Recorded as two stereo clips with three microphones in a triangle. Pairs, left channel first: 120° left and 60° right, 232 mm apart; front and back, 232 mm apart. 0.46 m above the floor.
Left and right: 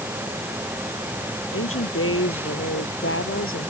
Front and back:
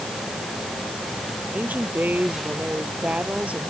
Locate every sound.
1.5 s a woman speaking: 95° left